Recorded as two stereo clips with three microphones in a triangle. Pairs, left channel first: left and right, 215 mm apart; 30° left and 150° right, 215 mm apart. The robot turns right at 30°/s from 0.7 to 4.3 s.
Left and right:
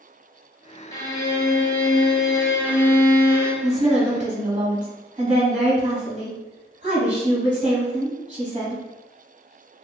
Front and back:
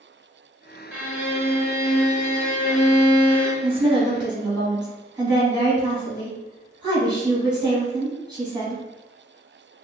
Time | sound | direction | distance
0.9 | a violin | 140° left | 0.8 m
3.6 | a woman speaking | 115° right | 1.2 m